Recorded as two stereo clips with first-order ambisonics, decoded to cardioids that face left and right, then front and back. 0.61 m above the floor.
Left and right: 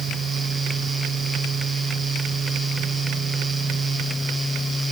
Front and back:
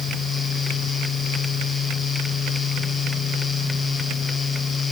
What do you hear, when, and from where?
Only background noise.